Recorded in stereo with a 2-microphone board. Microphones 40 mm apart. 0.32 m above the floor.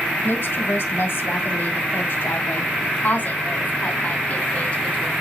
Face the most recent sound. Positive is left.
turn(degrees=30)  # may be behind; listen again after turning